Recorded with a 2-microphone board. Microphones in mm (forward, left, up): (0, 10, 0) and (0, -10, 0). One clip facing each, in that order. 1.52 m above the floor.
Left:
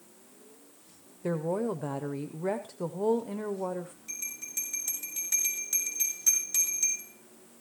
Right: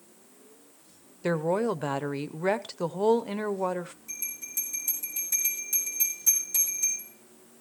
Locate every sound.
1.2 s a woman speaking: 75° right (ahead or behind), 0.7 m
4.1 s a bell: 40° left (ahead or behind), 6.5 m